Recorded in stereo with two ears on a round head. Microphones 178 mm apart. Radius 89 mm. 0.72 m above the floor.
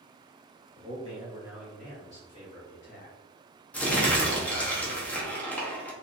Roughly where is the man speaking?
Right.